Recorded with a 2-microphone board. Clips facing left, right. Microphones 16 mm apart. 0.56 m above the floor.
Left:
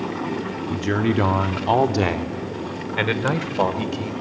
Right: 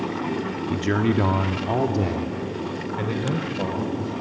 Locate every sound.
0.7 s a man speaking: 10° right (ahead or behind), 0.9 m; by 4.1 s 70° left (ahead or behind), 2.5 m